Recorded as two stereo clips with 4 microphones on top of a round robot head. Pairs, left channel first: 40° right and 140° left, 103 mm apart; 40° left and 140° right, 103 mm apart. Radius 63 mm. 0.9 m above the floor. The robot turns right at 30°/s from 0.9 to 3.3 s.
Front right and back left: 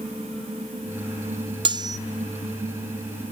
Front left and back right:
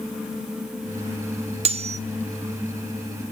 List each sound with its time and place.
1.6 s cutlery clinking: 170° right, 0.6 m; by 2.0 s 160° right, 0.6 m